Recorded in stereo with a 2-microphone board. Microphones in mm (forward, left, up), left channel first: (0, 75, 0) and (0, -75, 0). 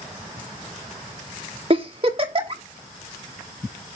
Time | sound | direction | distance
1.7 | a giggle | 40° right (ahead or behind) | 1.8 m